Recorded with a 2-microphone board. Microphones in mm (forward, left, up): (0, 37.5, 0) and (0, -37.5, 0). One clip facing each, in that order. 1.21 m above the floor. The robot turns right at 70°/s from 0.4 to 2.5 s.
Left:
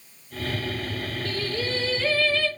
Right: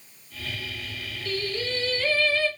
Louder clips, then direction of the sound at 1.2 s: Right 1 dB; 105° left.